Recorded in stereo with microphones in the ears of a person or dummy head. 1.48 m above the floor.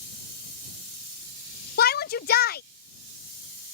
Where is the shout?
45° left (ahead or behind).